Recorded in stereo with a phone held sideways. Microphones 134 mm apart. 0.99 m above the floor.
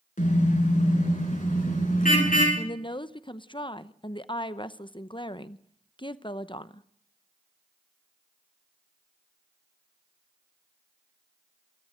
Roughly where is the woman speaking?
Left.